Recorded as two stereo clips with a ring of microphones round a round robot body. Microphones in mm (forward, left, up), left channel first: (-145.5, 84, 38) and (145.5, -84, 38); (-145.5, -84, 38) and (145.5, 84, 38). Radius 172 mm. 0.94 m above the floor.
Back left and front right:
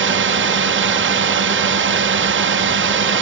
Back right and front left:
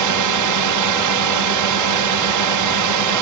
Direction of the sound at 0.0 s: 20° left.